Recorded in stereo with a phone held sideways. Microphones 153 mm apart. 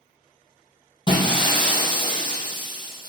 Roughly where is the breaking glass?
Left.